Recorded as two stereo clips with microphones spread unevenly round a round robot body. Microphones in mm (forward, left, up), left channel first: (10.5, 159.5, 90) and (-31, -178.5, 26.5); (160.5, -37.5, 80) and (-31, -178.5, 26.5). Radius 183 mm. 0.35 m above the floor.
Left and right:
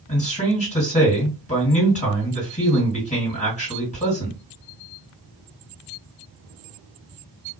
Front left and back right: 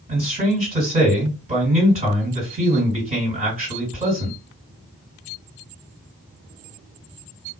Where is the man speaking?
155° left, 2.0 m.